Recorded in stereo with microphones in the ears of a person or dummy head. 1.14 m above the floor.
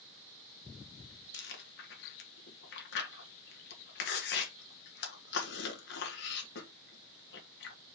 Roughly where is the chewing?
Left.